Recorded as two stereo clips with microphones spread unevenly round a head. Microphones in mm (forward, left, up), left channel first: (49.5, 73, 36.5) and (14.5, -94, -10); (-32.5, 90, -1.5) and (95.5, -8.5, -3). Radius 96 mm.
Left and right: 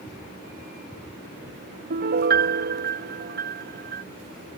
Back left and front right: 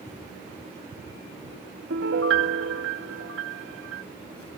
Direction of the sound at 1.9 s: 70° right.